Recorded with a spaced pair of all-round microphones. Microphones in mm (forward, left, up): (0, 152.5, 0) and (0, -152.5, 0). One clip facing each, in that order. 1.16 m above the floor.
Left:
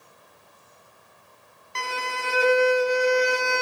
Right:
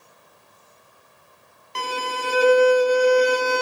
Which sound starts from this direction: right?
A violin, at 1.8 s.